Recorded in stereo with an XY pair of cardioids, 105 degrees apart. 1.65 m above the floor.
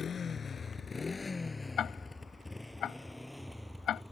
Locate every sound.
0.0 s a motorcycle: 45° left; by 4.1 s straight ahead
1.8 s ticking: 60° left